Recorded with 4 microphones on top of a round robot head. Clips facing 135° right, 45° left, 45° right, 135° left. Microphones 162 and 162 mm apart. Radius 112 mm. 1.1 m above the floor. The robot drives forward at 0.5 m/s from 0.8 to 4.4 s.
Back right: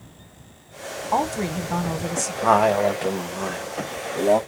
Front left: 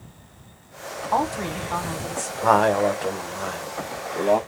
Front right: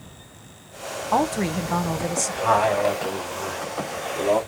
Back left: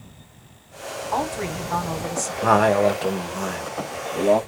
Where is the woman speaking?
65° right, 0.9 m; by 2.3 s 115° right, 0.9 m.